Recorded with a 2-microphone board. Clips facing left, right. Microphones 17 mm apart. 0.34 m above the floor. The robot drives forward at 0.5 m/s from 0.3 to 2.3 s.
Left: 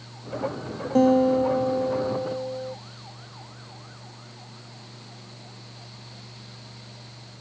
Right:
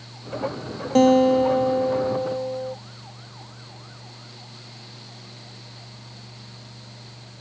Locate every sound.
0.9 s a guitar: 60° right (ahead or behind); by 2.8 s 70° right (ahead or behind)